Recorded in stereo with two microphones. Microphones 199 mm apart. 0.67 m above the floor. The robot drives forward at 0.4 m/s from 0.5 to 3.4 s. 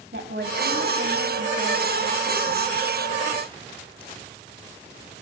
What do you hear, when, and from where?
0.1 s a woman speaking: 65° right (ahead or behind), 4 m; by 2.8 s 75° right (ahead or behind), 3.5 m